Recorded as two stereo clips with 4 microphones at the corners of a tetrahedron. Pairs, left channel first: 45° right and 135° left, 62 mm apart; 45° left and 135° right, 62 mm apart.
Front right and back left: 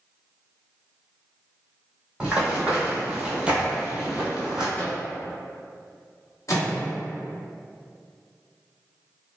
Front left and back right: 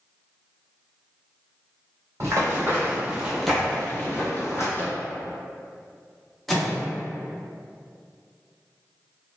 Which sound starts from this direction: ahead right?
A microwave, at 6.5 s.